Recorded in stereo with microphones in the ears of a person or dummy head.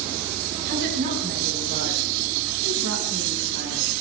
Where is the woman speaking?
65° right (ahead or behind), 7.5 m; by 3.9 s 75° right (ahead or behind), 7 m.